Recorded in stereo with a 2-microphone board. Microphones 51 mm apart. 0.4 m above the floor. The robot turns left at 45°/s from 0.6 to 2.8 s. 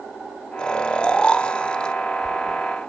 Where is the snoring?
15° left (ahead or behind), 0.9 m; by 1.9 s 20° left (ahead or behind), 0.9 m.